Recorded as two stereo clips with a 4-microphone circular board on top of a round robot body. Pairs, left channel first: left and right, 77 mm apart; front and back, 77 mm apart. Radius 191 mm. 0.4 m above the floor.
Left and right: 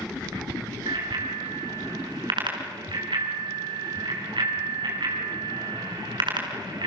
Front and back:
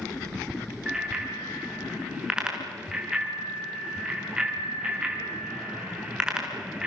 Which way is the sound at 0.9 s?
100° right.